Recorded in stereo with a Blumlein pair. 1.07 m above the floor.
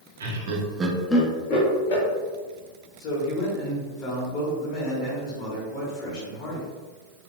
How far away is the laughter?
About 0.9 m.